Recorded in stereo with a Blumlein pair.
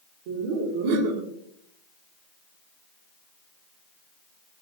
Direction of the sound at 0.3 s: 45° right.